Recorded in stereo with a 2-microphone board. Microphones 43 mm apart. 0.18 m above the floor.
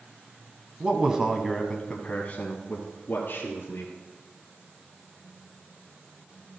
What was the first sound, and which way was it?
A man speaking, 25° right (ahead or behind).